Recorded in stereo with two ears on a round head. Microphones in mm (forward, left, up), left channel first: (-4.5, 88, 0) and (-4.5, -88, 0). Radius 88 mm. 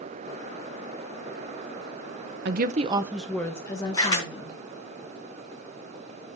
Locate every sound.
2.5 s a woman speaking: 55° right (ahead or behind), 0.8 m; by 4.6 s 30° left (ahead or behind), 2 m
3.9 s a camera shutter: 20° left (ahead or behind), 4 m